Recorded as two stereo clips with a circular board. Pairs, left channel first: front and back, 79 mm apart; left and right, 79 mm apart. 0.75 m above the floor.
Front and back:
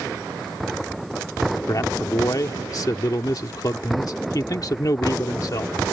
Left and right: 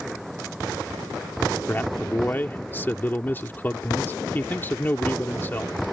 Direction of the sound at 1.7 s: 30° left.